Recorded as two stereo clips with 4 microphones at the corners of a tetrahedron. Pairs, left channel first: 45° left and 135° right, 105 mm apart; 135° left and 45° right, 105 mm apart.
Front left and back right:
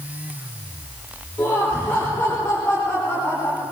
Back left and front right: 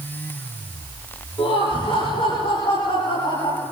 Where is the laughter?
120° left, 9.5 m; by 3.6 s 115° left, 12.5 m.